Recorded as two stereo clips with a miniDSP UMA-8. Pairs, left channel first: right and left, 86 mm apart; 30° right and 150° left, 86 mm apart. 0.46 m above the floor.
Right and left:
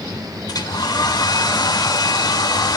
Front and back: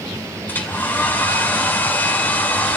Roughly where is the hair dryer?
Right.